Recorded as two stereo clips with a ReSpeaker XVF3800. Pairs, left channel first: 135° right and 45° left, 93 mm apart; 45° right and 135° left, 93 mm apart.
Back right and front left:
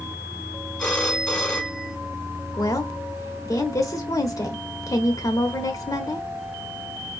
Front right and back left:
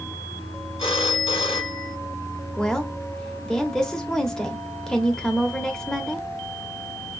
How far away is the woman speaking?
About 1.2 m.